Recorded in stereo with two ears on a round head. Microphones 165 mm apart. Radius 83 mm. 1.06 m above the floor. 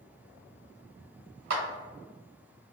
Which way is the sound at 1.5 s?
50° right (ahead or behind).